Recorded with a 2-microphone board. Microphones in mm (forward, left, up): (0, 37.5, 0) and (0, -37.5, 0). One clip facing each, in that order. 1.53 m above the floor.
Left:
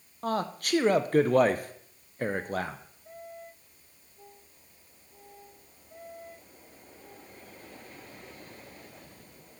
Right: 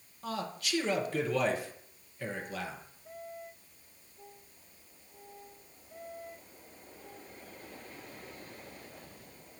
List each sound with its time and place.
0.2 s a man speaking: 45° left (ahead or behind), 0.6 m